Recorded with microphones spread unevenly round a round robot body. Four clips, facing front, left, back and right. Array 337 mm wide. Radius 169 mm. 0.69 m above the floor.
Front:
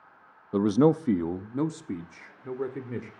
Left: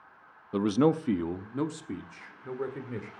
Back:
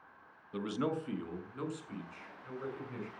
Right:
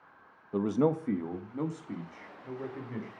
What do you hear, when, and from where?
0.5 s a man speaking: 30° left, 0.6 m; by 3.1 s 20° left, 2 m